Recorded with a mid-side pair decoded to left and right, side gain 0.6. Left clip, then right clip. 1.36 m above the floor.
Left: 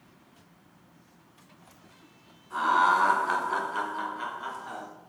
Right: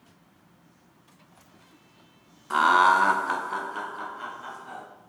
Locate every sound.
2.5 s laughter: 70° right, 0.6 m; by 4.8 s 25° left, 1.8 m